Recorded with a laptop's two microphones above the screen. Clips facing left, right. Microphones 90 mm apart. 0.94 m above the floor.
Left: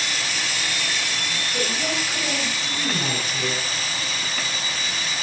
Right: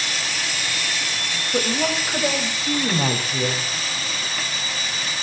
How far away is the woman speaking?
About 4 m.